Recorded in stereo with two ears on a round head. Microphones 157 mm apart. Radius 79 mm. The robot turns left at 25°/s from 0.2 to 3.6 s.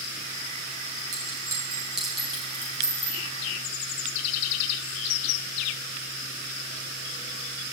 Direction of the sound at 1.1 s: 25° right (ahead or behind).